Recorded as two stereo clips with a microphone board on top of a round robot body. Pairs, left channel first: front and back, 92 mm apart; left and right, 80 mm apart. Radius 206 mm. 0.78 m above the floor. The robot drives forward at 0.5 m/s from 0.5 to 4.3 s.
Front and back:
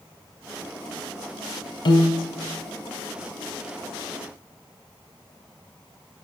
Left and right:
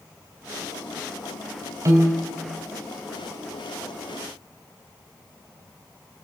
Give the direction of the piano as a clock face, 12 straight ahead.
1 o'clock.